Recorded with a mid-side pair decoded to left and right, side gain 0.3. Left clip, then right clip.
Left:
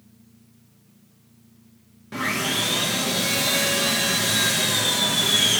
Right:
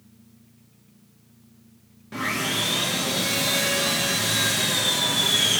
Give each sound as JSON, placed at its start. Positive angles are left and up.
{"t": 2.1, "sound": "sawing", "azimuth_deg": 25, "distance_m": 1.5}